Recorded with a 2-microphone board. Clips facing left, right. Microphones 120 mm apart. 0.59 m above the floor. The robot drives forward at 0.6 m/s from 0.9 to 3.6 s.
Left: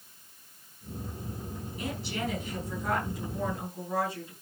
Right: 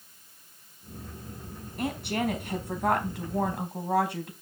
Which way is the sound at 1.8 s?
55° right (ahead or behind).